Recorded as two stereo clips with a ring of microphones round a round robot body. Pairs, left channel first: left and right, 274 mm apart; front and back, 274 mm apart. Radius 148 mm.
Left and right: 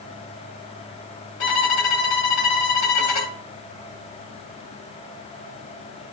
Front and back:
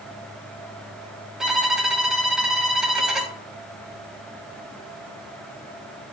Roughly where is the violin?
Left.